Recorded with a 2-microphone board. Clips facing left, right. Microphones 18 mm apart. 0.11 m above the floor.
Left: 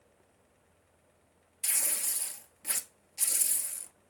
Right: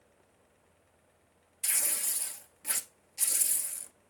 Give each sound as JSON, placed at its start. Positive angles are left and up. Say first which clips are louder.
{"t": 1.6, "sound": "tearing paper", "louder": "even", "side_deg": 0, "distance_m": 0.9}